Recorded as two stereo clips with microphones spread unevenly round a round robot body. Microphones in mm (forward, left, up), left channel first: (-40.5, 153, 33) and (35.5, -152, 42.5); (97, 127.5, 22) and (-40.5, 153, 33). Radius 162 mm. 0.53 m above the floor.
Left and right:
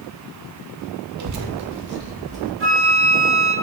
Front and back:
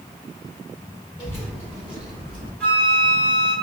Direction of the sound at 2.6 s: 80° right.